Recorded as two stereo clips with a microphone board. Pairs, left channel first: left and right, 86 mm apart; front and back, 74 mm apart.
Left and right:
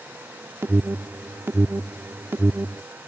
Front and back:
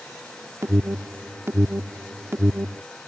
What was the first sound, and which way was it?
An alarm, 140° right.